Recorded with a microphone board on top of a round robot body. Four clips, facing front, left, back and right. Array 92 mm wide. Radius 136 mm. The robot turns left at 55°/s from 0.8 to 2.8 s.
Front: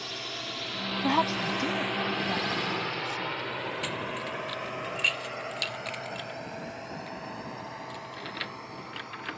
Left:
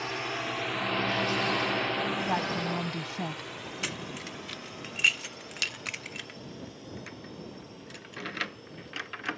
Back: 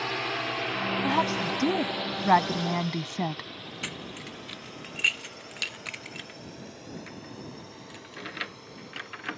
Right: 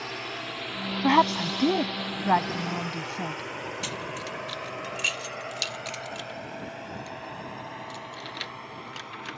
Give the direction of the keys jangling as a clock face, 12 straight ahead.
8 o'clock.